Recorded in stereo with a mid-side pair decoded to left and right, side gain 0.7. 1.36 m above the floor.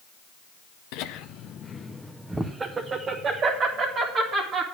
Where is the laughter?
70° left, 0.7 m; by 4.6 s 50° right, 1.9 m.